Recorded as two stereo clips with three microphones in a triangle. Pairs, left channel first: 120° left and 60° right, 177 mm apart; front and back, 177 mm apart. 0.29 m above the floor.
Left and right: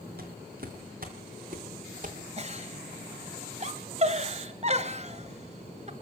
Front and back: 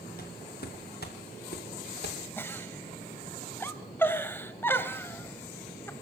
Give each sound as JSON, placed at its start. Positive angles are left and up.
{"t": 0.2, "sound": "footsteps", "azimuth_deg": -30, "distance_m": 5.0}
{"t": 2.4, "sound": "a giggle", "azimuth_deg": -70, "distance_m": 1.8}